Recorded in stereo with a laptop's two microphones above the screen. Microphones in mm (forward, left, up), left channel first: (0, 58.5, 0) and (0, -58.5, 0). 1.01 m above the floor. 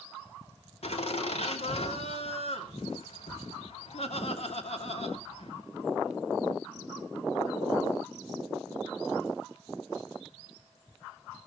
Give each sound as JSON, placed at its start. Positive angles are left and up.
{"t": 0.8, "sound": "laughter", "side_deg": 65, "distance_m": 3.0}